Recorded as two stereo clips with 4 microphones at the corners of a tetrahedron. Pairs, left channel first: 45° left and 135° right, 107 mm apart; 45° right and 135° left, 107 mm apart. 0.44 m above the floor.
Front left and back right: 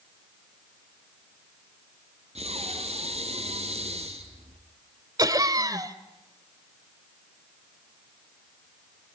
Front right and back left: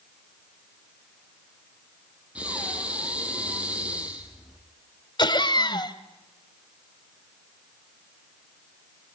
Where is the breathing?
145° right, 3 m.